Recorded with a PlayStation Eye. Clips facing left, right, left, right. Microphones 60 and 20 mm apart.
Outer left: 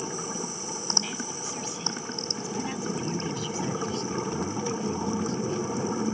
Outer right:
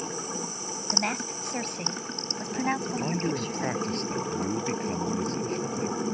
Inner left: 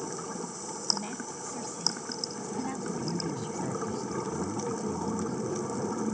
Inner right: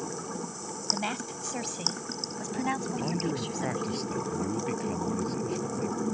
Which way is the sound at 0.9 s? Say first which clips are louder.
Outer right 7 dB, inner right 7 dB; 50° right (ahead or behind).